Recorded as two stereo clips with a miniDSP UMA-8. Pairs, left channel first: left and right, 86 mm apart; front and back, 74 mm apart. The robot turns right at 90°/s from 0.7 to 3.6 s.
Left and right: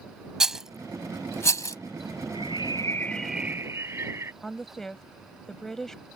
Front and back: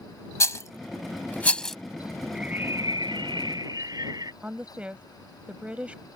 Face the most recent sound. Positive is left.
turn(degrees=165)